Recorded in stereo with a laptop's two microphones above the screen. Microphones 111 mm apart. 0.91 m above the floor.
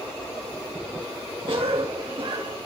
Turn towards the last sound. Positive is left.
turn(degrees=-50)  # may be behind; listen again after turning